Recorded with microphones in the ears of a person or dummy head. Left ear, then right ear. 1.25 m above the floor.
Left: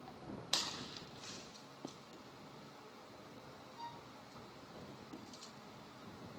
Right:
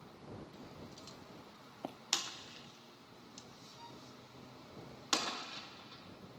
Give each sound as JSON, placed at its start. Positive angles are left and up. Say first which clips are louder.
{"t": 1.8, "sound": "running footsteps", "louder": "right 6 dB", "side_deg": -35}
{"t": 3.8, "sound": "a violin", "louder": "left 5 dB", "side_deg": 30}